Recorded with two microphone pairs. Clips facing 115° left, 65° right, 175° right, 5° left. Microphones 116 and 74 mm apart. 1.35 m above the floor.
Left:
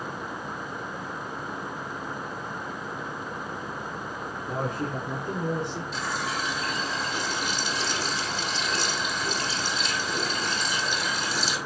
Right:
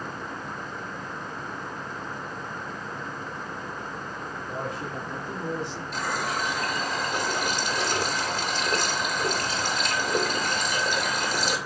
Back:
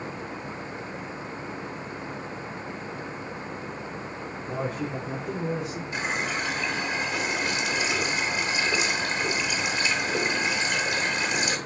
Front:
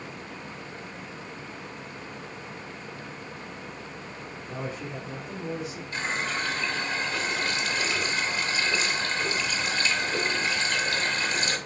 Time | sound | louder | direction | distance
4.5 | a man speaking | left 4 dB, back 5 dB | 145° left | 4 m
5.9 | a running tap | right 4 dB, back 1 dB | 100° right | 2.5 m